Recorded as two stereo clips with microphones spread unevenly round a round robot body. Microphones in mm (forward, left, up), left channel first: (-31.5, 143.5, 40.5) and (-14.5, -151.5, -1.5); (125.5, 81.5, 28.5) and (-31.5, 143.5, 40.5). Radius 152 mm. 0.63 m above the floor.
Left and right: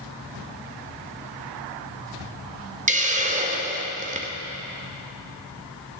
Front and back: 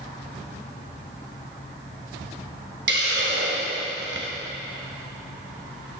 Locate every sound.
2.9 s a hiss: 155° right, 0.8 m